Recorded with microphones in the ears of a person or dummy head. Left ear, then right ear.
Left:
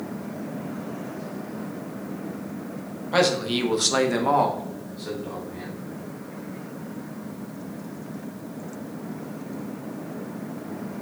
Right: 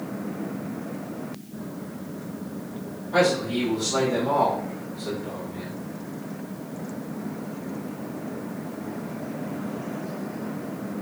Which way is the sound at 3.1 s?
50° left (ahead or behind).